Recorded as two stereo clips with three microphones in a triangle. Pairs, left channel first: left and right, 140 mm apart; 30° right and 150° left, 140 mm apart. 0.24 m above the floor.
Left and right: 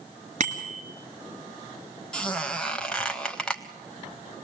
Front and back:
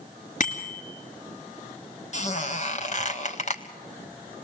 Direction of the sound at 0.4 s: 55° right.